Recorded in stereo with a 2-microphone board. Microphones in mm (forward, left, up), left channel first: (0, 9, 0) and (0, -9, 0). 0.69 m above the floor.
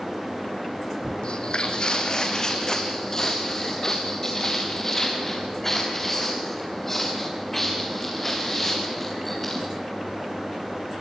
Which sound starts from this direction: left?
Footsteps, at 1.2 s.